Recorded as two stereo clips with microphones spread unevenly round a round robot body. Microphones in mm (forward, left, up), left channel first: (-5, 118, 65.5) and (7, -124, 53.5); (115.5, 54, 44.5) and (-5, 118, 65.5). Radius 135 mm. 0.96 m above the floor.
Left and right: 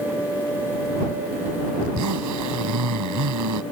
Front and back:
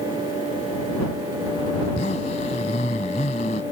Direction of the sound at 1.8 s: 85° right.